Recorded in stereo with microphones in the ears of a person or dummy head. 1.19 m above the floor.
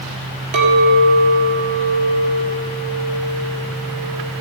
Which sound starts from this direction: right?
A clink, at 0.5 s.